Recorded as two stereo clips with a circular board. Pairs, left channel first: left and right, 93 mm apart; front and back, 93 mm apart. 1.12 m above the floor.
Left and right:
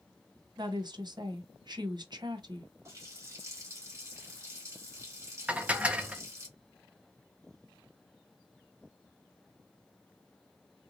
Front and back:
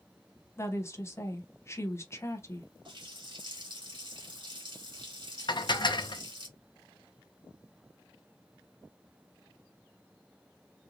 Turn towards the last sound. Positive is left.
turn(degrees=-15)